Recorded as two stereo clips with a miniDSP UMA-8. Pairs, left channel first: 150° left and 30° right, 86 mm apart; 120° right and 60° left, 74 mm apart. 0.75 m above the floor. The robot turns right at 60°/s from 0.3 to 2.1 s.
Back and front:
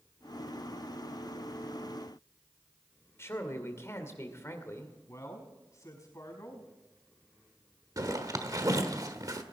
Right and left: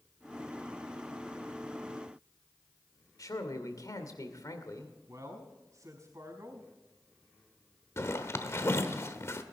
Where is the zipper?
70° right, 1.2 m.